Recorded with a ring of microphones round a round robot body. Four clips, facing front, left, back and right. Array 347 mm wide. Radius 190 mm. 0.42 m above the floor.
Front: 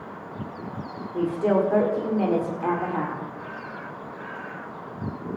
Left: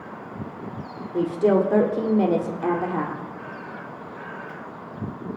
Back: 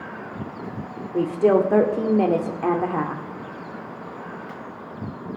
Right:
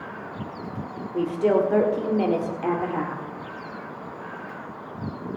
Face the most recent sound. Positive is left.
turn(degrees=160)